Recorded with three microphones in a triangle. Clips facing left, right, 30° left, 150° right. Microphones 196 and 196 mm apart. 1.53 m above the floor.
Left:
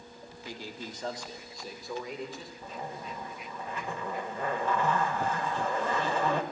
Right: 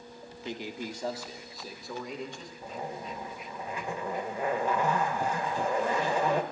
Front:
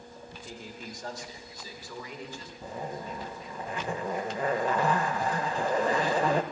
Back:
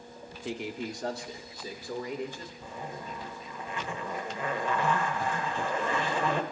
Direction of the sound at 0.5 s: 160° right.